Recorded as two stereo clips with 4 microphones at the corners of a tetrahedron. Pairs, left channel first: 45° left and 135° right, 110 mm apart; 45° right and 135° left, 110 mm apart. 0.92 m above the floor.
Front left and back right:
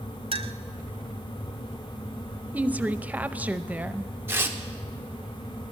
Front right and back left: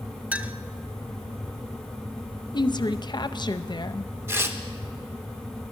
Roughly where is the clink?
Behind right.